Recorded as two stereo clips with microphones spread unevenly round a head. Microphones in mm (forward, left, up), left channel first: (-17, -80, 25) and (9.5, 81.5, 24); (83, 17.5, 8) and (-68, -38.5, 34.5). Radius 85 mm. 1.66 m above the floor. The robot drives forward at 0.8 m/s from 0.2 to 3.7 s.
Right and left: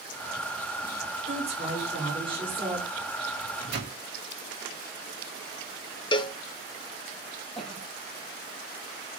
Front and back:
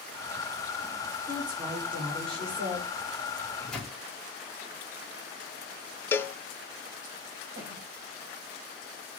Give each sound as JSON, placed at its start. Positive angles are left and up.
{"t": 1.3, "sound": "a woman speaking", "azimuth_deg": 135, "distance_m": 5.0}
{"t": 3.4, "sound": "a microwave", "azimuth_deg": 100, "distance_m": 2.0}
{"t": 6.1, "sound": "a cowbell", "azimuth_deg": -60, "distance_m": 0.5}
{"t": 7.5, "sound": "a cough", "azimuth_deg": 175, "distance_m": 9.0}